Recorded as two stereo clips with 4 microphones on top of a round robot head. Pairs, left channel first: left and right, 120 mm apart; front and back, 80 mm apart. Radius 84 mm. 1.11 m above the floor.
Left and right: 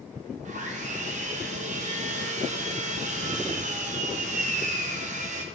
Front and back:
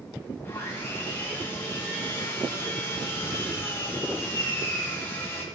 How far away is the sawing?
About 1.1 m.